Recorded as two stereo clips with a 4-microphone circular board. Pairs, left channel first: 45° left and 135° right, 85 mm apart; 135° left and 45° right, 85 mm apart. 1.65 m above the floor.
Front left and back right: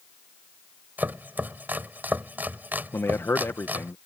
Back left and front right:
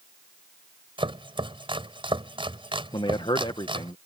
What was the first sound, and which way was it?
Chopping, 65° right.